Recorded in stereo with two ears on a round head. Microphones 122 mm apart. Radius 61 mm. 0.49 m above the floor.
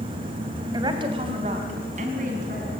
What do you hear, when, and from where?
0.7 s a woman speaking: 30° right (ahead or behind), 2.5 m; by 2.7 s 65° right (ahead or behind), 4 m